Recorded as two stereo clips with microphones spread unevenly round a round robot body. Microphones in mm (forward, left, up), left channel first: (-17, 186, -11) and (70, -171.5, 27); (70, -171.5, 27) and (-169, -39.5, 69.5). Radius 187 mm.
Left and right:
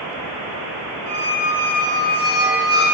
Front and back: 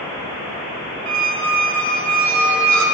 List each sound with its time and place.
1.1 s a squeak: 170° left, 2 m